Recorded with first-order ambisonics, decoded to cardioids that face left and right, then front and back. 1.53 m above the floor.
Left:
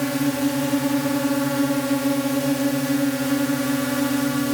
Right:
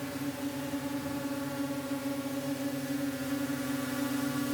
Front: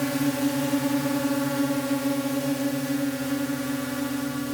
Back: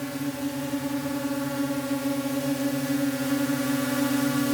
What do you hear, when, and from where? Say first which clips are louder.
0.0 s a drone: left 14 dB, front 6 dB; 65° left; by 4.5 s 120° left